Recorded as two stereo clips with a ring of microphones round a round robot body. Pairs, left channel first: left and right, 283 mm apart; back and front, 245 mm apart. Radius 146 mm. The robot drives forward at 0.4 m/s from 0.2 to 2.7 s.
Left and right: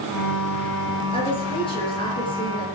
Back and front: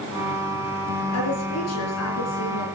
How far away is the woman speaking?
About 6 m.